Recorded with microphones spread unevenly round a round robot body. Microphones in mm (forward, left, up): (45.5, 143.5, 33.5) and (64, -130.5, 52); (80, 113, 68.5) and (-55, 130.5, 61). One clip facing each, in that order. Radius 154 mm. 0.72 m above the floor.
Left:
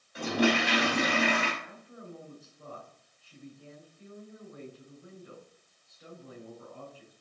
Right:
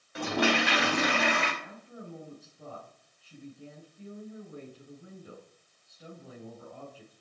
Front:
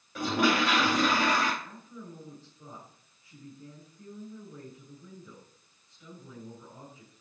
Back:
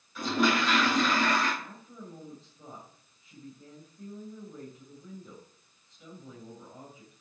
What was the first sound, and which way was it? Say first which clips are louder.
A toilet flushing: left 1 dB, front 1 dB; 60° right.